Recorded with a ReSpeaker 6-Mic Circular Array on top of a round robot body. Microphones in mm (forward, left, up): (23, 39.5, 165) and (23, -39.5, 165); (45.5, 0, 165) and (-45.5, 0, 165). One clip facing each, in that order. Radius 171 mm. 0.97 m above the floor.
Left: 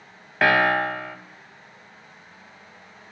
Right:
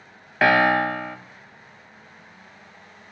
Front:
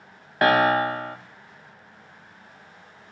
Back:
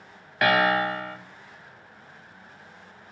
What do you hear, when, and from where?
0.4 s a piano: straight ahead, 0.6 m